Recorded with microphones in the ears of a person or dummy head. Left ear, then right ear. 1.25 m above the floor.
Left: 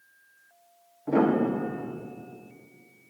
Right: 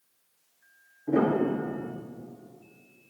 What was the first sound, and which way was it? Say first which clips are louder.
A piano: left 1 dB; 75° left (ahead or behind).